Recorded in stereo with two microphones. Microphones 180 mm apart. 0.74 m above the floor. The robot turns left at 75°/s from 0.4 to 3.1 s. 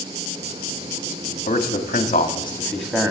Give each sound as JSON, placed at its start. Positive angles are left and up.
{"t": 1.5, "sound": "a man speaking", "side_deg": 55, "distance_m": 1.4}